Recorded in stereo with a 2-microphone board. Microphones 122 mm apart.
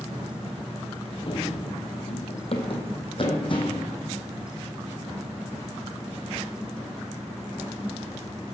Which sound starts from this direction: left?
Running footsteps, at 1.3 s.